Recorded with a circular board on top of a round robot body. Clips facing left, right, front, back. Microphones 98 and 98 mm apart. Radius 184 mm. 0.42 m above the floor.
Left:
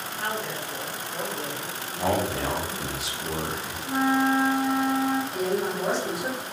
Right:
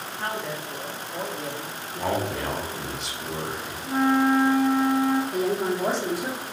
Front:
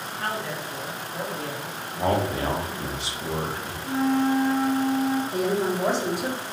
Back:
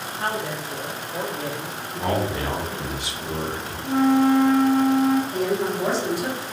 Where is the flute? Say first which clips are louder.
Right 2 dB, back 5 dB; straight behind, 0.6 m.